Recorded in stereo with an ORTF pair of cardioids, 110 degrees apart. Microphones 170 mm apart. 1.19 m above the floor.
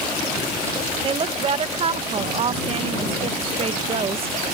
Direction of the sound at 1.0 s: 35° right.